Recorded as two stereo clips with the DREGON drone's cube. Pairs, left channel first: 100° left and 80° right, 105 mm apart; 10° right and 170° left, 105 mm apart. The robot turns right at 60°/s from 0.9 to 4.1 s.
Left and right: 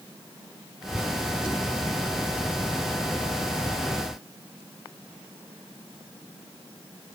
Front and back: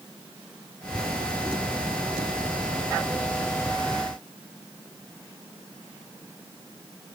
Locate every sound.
Only background noise.